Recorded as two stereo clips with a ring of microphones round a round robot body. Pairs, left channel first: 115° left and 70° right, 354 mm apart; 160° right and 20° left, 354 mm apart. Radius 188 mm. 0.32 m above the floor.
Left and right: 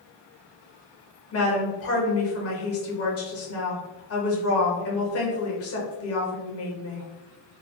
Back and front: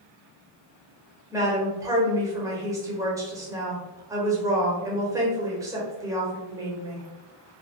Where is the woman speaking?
100° left, 1.0 m.